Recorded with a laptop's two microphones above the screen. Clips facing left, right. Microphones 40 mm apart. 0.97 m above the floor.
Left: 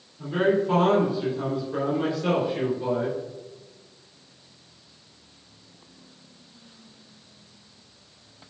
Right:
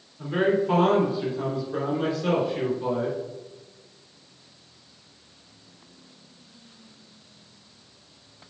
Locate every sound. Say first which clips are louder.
0.2 s a man speaking: even; 20° right (ahead or behind), 2.5 m; by 3.2 s 10° left (ahead or behind), 4 m